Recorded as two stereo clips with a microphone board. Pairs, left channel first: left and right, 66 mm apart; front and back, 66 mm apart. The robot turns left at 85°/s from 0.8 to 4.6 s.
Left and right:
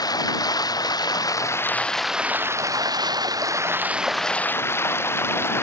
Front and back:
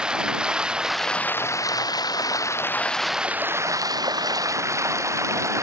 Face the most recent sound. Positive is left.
turn(degrees=140)